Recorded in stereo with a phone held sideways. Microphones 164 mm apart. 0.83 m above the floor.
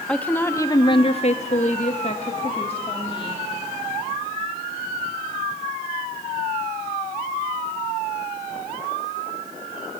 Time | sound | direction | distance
0.1 | a woman speaking | 5° left (ahead or behind) | 1.2 m